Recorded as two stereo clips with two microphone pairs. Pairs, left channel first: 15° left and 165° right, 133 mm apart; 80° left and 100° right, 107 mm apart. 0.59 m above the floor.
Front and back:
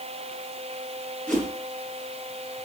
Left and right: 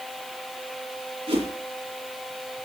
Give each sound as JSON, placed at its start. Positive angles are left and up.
{"t": 1.3, "sound": "a whoosh", "azimuth_deg": -70, "distance_m": 8.0}